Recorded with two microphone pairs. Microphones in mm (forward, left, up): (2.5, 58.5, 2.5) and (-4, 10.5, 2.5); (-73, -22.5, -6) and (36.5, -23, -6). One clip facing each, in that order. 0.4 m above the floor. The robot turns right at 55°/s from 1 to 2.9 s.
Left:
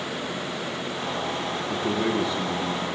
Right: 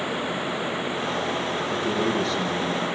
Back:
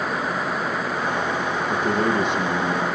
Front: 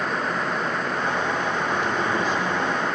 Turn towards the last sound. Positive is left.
turn(degrees=-170)